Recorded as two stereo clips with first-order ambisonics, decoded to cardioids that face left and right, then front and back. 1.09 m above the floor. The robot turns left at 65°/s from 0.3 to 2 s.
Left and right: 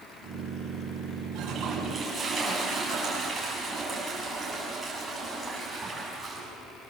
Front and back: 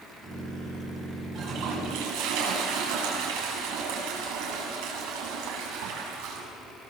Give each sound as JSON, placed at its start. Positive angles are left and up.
{"t": 1.4, "sound": "a toilet flushing", "azimuth_deg": -130, "distance_m": 8.5}